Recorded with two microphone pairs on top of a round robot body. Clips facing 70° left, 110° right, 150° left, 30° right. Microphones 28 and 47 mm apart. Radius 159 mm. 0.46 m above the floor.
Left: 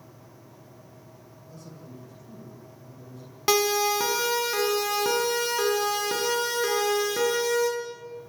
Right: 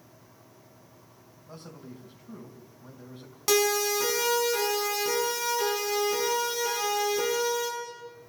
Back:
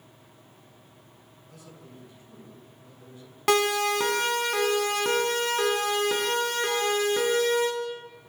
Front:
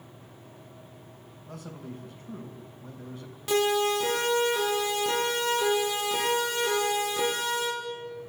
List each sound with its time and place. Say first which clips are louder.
1.5 s a man speaking: right 1 dB, front 8 dB; 60° right, 4 m
3.5 s a siren: left 2 dB, back 1 dB; 135° left, 5.5 m; by 7.7 s 105° left, 9.5 m